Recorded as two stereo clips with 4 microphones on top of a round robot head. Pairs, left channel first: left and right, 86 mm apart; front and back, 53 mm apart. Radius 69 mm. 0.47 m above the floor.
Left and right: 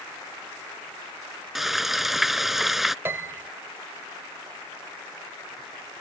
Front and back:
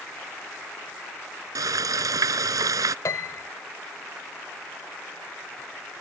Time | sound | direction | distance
1.6 | frying | 175° right | ?
3.0 | a piano | 25° right | ?